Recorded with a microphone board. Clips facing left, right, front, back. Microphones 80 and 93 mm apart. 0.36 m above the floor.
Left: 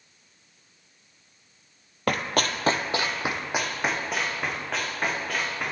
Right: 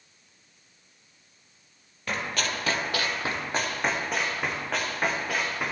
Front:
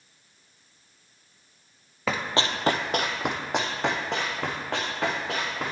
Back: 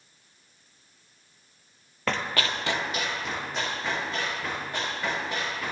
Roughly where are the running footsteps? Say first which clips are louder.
Left 5 dB, front 2 dB; left.